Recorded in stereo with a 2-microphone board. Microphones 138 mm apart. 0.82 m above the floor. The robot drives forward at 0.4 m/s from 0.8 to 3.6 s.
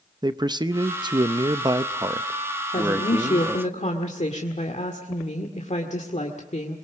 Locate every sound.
0.2 s a man speaking: 30° right (ahead or behind), 0.6 m; by 3.7 s 15° right (ahead or behind), 1.1 m
2.7 s a woman speaking: 65° left (ahead or behind), 1.7 m; by 6.8 s 55° left (ahead or behind), 1.8 m